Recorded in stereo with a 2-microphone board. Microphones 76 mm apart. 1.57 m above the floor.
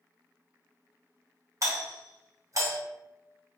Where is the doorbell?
50° right (ahead or behind), 0.8 m.